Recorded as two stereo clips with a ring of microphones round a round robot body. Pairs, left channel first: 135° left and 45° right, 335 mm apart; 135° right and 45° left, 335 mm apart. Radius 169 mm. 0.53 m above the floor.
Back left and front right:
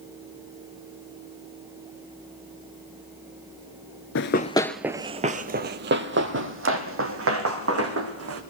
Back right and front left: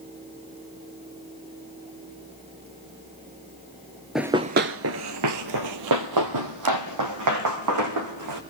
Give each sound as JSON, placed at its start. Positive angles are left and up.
{"t": 4.2, "sound": "running footsteps", "azimuth_deg": 135, "distance_m": 0.5}